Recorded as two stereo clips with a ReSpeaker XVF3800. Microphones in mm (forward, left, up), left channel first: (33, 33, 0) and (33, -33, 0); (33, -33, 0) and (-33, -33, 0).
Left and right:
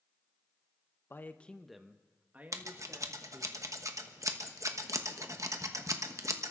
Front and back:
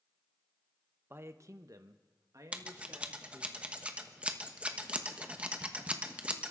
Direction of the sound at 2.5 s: 110° right.